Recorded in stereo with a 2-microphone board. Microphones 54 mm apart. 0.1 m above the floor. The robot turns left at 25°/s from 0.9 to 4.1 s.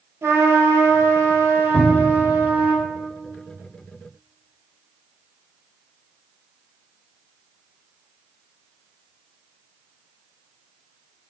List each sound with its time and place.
0.2 s a trumpet: 90° right, 0.9 m; by 2.7 s 135° right, 0.9 m
1.7 s a cupboard door: 5° right (ahead or behind), 1.3 m; by 2.3 s 15° right (ahead or behind), 1.3 m